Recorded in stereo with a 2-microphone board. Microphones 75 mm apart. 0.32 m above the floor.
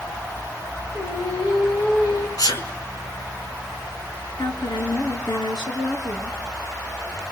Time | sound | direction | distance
0.9 | singing | 85° left | 8 m
2.4 | a sneeze | 55° left (ahead or behind) | 4 m
4.4 | a woman speaking | 75° left (ahead or behind) | 4 m